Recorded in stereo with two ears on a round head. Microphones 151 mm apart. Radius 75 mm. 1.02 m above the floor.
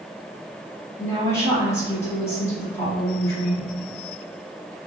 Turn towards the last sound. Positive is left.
turn(degrees=15)  # may be behind; listen again after turning